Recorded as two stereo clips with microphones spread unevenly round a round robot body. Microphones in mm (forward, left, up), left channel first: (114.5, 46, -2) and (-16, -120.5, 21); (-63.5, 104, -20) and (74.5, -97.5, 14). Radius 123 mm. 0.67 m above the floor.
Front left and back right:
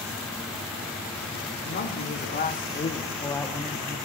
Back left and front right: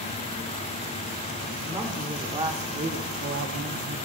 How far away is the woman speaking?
About 2 m.